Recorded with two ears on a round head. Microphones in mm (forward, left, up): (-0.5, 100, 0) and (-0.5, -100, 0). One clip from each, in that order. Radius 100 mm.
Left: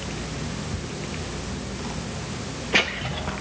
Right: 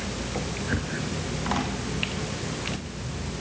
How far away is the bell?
No bell in this recording.